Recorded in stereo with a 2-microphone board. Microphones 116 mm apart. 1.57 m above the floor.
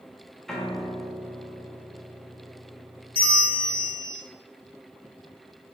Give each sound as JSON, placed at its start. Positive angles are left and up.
{"t": 0.5, "sound": "a piano", "side_deg": 5, "distance_m": 0.6}
{"t": 3.1, "sound": "a bell", "side_deg": 15, "distance_m": 2.0}